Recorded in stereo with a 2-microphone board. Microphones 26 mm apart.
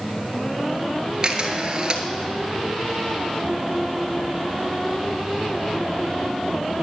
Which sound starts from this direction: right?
A camera shutter, at 1.2 s.